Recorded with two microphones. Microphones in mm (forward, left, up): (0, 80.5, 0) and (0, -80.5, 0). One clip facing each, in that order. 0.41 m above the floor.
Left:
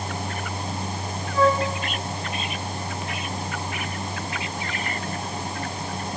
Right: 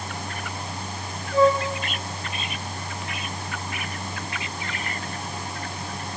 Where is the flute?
85° right, 8.5 m.